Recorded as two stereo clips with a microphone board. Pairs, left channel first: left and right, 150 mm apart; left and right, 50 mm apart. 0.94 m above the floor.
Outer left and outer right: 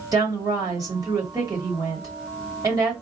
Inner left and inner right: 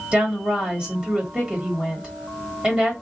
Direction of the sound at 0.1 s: 25° right (ahead or behind).